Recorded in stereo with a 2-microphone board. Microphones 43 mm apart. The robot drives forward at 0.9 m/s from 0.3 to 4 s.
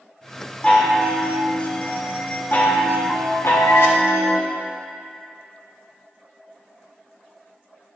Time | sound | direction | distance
0.6 | a chime | 25° left (ahead or behind) | 3 m